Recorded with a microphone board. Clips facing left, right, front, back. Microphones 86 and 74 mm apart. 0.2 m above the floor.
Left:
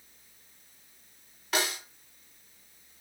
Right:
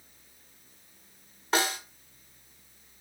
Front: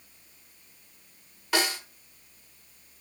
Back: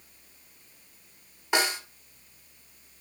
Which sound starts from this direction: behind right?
A snare drum, at 1.5 s.